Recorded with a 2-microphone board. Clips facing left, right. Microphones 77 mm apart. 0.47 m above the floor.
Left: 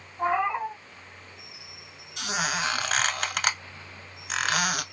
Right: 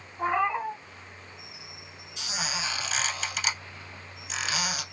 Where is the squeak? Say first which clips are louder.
Left 6 dB; 55° left (ahead or behind), 0.8 m.